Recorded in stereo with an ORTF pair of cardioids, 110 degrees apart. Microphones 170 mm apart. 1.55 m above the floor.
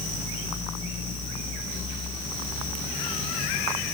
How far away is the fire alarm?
I don't hear a fire alarm.